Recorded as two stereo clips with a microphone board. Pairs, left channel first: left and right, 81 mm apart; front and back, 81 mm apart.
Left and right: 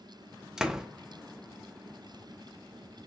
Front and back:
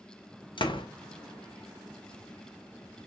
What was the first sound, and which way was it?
A door slam, 5° right.